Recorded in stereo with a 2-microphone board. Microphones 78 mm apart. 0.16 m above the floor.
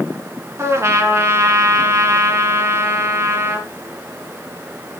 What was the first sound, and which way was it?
A trumpet, 35° right (ahead or behind).